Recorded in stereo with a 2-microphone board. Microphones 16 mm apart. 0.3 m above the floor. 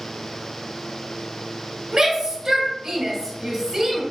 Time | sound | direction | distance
1.9 | a shout | 35° right (ahead or behind) | 1.8 m